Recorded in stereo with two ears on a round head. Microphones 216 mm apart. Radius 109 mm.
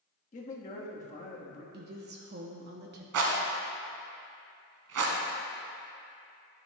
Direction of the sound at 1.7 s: 45° right (ahead or behind).